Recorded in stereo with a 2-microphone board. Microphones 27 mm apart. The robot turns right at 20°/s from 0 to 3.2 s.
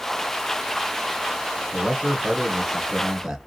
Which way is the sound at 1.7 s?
25° right (ahead or behind).